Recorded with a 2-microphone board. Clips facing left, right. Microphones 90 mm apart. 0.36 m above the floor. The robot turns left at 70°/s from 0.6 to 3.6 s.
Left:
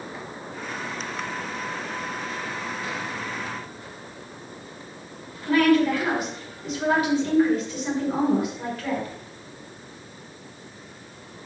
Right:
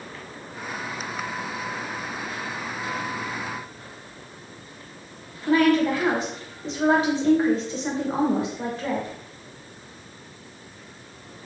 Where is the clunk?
No clunk in this recording.